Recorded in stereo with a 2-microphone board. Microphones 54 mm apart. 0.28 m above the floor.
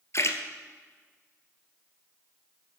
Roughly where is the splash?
Left.